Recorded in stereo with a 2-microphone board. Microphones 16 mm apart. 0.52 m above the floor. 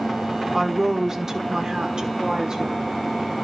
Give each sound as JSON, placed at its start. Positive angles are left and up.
{"t": 0.5, "sound": "a woman speaking", "side_deg": -10, "distance_m": 1.3}